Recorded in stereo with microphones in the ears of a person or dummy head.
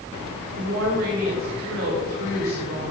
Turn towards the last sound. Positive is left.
turn(degrees=-75)  # may be behind; listen again after turning